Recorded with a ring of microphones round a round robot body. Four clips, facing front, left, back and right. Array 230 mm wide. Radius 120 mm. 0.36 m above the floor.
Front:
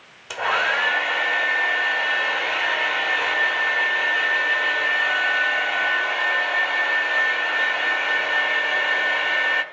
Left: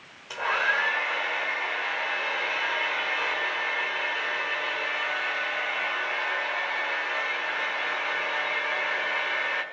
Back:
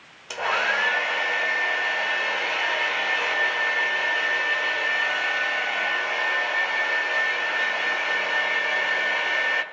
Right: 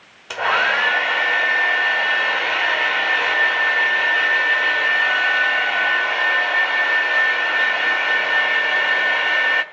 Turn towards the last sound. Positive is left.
turn(degrees=-80)